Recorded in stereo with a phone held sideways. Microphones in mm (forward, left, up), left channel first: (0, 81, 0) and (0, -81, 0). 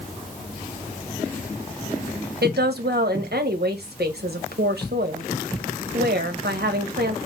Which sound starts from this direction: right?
A woman speaking, at 2.4 s.